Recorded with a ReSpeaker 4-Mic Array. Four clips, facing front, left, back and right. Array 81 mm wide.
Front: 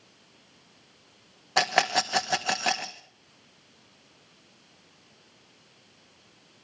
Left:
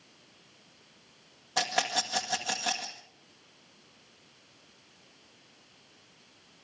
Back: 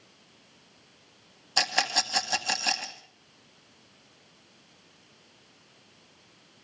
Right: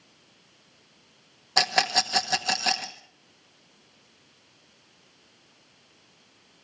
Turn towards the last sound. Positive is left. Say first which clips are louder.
# right 5 dB, front 5 dB
turn(degrees=-20)